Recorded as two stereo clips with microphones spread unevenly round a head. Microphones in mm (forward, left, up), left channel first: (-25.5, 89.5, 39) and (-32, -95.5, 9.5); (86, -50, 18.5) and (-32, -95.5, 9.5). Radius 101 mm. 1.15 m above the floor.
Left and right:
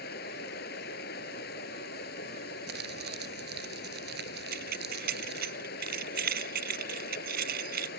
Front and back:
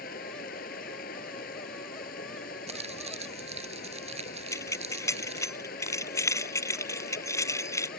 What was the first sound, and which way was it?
Running water, 45° left.